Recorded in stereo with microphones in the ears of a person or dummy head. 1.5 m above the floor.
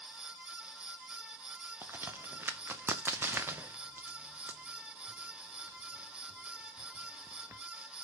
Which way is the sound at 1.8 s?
5° right (ahead or behind).